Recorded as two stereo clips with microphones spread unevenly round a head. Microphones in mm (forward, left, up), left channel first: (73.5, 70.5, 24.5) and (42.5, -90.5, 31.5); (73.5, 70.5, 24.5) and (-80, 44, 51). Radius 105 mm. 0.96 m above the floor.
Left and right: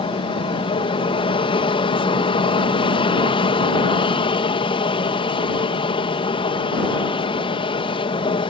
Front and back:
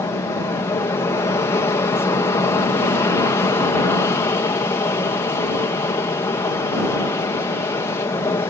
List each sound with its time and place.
0.0 s an aircraft: 55° left